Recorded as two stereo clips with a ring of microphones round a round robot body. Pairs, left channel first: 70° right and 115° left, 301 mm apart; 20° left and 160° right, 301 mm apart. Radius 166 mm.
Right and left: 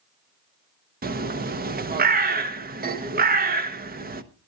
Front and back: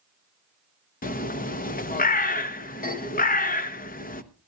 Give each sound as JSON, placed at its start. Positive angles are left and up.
{"t": 1.0, "sound": "a bird", "azimuth_deg": 70, "distance_m": 1.0}